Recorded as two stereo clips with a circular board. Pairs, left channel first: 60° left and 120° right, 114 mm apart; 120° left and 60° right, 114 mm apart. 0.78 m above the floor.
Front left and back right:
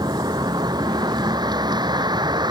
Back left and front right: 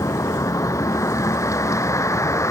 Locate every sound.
0.0 s a vehicle: 175° right